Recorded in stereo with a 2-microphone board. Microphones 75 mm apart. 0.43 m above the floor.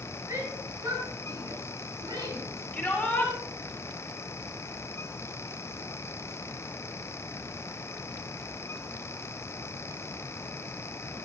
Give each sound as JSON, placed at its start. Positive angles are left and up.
{"t": 0.3, "sound": "a shout", "side_deg": -45, "distance_m": 7.5}
{"t": 2.7, "sound": "a shout", "side_deg": 15, "distance_m": 6.5}